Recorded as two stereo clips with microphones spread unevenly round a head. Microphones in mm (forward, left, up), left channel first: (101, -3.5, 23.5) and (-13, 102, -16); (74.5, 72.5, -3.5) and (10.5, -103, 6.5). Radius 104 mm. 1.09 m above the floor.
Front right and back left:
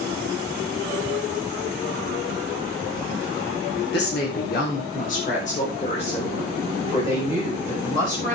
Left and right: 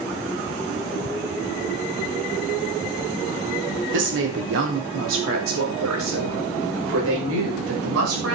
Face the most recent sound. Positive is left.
turn(degrees=-115)